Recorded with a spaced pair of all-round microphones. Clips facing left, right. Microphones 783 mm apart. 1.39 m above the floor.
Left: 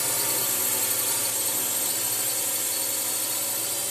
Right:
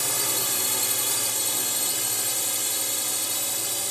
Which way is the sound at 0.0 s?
Centre (ahead or behind).